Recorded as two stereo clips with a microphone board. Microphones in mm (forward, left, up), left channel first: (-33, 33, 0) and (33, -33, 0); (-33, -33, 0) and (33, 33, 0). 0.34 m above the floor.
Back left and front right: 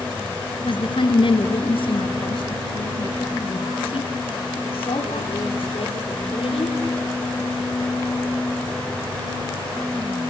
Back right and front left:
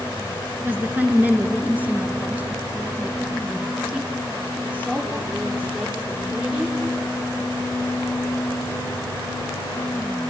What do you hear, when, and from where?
0.7 s a woman speaking: 115° left, 4 m; by 6.8 s 120° left, 10 m